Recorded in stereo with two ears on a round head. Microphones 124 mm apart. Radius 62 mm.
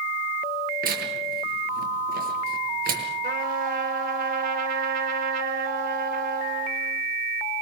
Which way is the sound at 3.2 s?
70° right (ahead or behind).